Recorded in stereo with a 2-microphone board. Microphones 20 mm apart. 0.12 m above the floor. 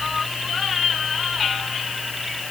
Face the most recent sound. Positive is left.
No sound to turn to.